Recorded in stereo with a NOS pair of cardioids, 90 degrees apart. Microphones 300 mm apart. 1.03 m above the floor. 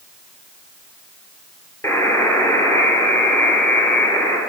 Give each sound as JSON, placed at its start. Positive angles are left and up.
{"t": 1.8, "sound": "a buzzer", "azimuth_deg": 10, "distance_m": 4.5}